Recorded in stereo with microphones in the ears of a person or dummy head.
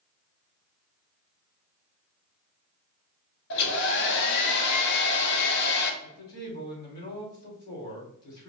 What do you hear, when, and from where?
3.5 s a hair dryer: 60° left (ahead or behind), 0.8 m
6.0 s a man speaking: 50° left (ahead or behind), 2.5 m